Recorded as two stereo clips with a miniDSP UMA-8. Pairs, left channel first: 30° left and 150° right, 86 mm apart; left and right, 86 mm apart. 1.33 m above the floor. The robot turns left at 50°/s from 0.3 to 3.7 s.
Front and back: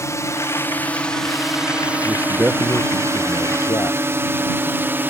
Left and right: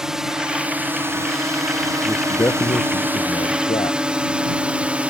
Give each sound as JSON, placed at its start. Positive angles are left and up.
{"t": 0.0, "sound": "a drone", "azimuth_deg": -10}
{"t": 2.0, "sound": "a man speaking", "azimuth_deg": 160}